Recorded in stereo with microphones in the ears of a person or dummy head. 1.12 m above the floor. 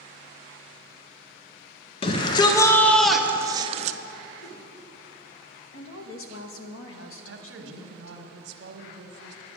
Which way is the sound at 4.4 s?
80° left.